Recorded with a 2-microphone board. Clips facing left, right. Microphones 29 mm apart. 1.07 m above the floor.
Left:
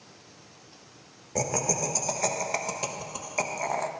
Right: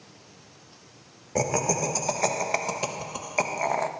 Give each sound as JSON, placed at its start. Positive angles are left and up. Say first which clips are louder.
{"t": 1.4, "sound": "laughter", "louder": "right 3 dB", "side_deg": -15, "distance_m": 1.1}